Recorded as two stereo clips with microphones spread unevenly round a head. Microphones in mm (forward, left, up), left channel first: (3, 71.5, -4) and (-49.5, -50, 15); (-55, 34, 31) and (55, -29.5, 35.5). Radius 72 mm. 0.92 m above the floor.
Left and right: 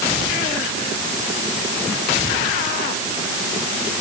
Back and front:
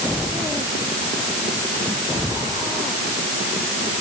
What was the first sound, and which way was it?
Only background noise.